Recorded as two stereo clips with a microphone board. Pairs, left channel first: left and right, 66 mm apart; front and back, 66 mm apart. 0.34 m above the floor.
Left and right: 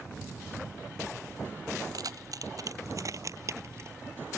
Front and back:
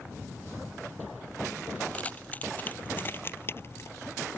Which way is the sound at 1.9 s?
70° right.